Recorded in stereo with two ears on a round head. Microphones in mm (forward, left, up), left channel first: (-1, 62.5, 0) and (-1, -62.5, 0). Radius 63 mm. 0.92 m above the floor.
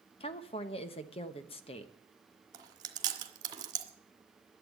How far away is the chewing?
About 1.8 m.